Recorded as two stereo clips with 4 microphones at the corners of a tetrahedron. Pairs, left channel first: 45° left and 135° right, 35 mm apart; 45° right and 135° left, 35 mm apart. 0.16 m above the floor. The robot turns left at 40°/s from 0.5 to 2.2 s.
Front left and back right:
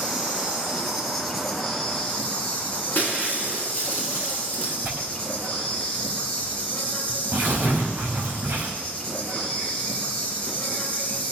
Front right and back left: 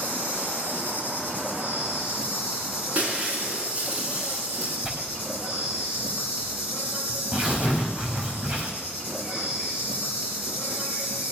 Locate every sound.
0.0 s an insect: 170° left, 4.5 m; by 11.3 s 105° left, 4.5 m
3.0 s breaking glass: 90° left, 7.5 m
4.8 s tearing paper: 175° right, 5.5 m